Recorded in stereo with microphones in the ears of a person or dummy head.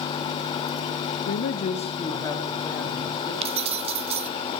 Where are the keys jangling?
25° right (ahead or behind), 0.9 m.